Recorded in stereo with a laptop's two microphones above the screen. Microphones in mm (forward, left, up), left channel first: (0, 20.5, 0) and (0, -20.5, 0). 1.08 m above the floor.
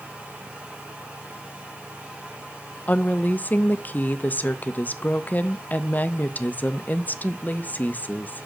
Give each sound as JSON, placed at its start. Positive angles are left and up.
{"t": 0.0, "sound": "a fan", "side_deg": -35, "distance_m": 1.7}
{"t": 2.9, "sound": "a woman speaking", "side_deg": 40, "distance_m": 0.6}